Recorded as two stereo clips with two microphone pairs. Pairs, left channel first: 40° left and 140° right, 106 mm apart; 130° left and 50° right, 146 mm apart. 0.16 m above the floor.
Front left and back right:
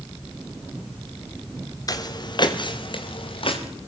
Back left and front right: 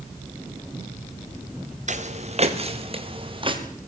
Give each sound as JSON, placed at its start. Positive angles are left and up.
{"t": 1.9, "sound": "footsteps", "azimuth_deg": -15, "distance_m": 3.0}